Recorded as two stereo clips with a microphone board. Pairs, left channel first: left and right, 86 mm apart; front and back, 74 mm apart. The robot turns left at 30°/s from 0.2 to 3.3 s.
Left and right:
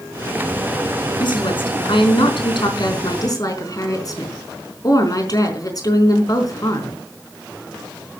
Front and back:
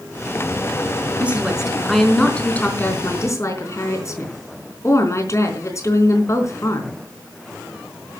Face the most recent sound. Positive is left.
turn(degrees=45)